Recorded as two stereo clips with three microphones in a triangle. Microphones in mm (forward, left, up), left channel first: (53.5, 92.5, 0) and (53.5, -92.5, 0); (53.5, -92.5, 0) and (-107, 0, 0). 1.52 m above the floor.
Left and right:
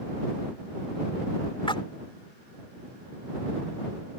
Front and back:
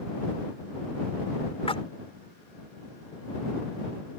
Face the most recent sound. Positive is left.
turn(degrees=25)